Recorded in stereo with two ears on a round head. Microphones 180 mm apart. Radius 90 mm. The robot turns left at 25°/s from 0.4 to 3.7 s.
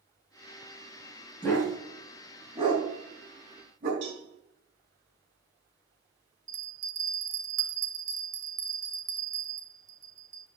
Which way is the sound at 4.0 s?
60° right (ahead or behind).